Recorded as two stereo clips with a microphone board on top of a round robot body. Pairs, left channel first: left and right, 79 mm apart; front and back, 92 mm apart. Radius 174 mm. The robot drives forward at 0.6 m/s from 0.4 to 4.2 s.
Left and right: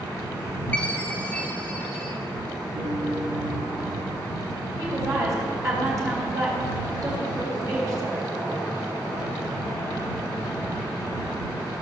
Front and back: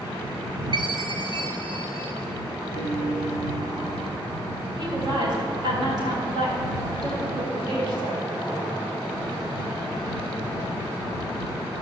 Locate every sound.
0.7 s a chime: 160° left, 1.5 m; by 2.1 s 170° left, 2 m
2.7 s a piano: 90° right, 2.5 m; by 4.1 s 110° right, 3 m
4.8 s a woman speaking: 140° right, 3.5 m